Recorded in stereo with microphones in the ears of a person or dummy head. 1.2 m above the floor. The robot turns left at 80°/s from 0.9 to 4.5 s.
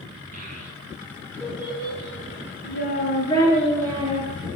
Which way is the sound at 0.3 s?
45° right (ahead or behind).